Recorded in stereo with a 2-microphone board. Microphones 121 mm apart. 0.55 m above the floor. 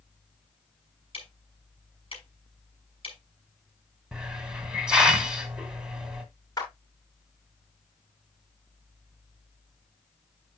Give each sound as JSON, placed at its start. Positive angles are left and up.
{"t": 1.1, "sound": "ticking", "side_deg": 50, "distance_m": 5.5}
{"t": 4.1, "sound": "a hiss", "side_deg": -5, "distance_m": 2.0}
{"t": 6.6, "sound": "a clap", "side_deg": 30, "distance_m": 6.5}